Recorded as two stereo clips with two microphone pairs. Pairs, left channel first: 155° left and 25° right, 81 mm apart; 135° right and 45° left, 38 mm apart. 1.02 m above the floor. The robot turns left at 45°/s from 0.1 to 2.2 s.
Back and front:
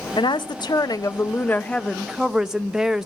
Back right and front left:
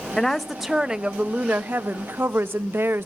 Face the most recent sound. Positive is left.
turn(degrees=60)